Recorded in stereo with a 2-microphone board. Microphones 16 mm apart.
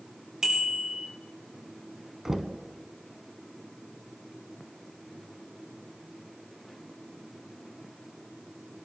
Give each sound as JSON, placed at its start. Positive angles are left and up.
{"t": 0.4, "sound": "a bicycle bell", "side_deg": -35, "distance_m": 3.0}
{"t": 2.2, "sound": "knocking", "side_deg": -30, "distance_m": 0.8}